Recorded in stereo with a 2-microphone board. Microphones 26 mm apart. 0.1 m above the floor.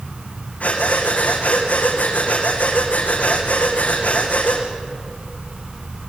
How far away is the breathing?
About 4 m.